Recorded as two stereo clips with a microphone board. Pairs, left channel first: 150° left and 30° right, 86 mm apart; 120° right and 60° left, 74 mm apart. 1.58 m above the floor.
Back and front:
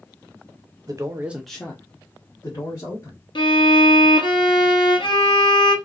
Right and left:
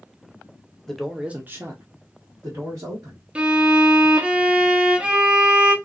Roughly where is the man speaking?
Ahead right.